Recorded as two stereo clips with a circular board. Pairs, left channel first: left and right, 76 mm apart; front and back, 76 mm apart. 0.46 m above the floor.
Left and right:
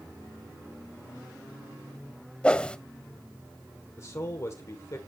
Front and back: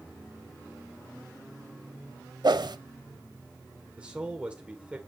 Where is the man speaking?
115° left, 1.7 m.